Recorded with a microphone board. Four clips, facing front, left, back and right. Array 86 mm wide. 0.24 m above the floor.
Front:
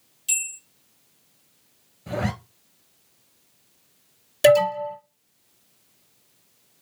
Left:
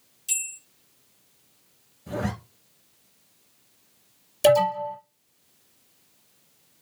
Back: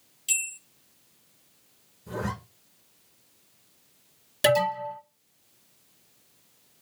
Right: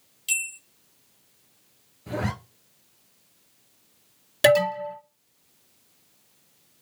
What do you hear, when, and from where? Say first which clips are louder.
0.3 s a bell: right 8 dB, even; 95° right, 2.5 m
2.1 s a zipper: even, front 5 dB; 25° right, 0.8 m
4.4 s an alarm: left 1 dB, front 7 dB; 90° right, 2.5 m